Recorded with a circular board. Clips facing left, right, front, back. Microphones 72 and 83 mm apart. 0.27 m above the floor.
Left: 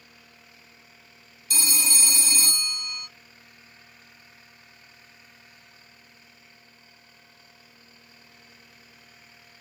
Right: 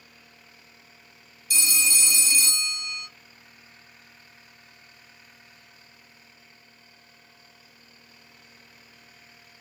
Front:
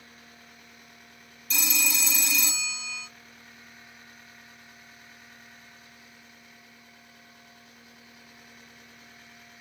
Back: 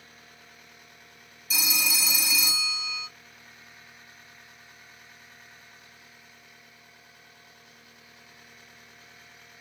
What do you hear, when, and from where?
1.5 s a phone ringing: 95° left, 0.9 m